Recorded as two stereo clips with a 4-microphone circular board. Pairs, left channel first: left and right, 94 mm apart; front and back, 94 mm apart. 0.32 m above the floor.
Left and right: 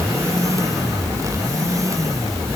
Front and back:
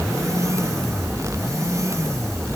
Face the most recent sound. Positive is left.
No sound to turn to.